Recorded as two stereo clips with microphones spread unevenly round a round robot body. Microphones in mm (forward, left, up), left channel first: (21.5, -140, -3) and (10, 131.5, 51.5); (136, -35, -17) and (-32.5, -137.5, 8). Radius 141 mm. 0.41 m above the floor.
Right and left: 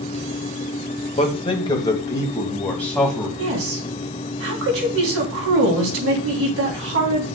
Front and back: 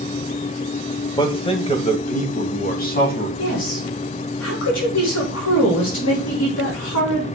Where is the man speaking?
30° right, 1.9 m; by 3.3 s 5° right, 3 m.